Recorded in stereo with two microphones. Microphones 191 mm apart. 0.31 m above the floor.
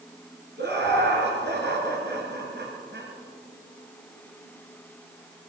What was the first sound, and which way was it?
Laughter, 65° right (ahead or behind).